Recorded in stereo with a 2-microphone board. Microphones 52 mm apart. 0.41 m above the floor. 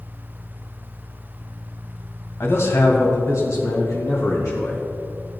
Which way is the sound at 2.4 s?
55° left (ahead or behind).